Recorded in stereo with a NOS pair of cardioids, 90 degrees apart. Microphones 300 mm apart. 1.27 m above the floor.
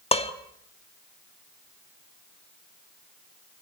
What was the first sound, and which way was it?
Dishes clattering, 20° left.